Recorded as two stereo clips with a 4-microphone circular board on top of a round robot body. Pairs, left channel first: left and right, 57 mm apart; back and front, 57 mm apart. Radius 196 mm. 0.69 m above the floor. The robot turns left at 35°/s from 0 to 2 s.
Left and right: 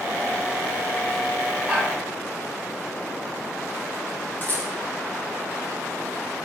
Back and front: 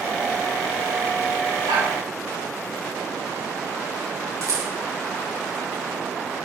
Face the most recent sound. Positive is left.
turn(degrees=35)